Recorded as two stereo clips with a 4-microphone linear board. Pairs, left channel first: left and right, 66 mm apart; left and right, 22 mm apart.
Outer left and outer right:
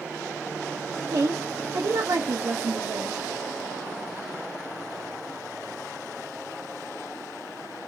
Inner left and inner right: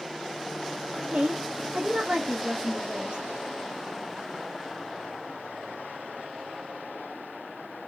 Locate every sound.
1.1 s a woman speaking: 60° right (ahead or behind), 0.6 m